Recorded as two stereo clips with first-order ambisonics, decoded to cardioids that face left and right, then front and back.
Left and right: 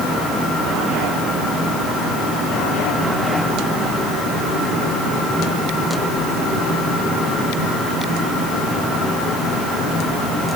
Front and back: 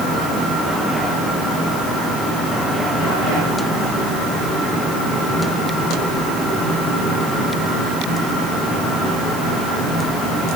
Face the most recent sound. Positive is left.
No sound to turn to.